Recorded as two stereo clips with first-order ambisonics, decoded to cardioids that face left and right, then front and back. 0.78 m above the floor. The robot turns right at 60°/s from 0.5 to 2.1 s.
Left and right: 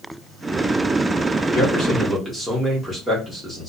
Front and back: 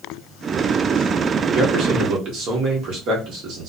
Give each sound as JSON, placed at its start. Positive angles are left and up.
{"t": 1.5, "sound": "a man speaking", "azimuth_deg": 130, "distance_m": 1.1}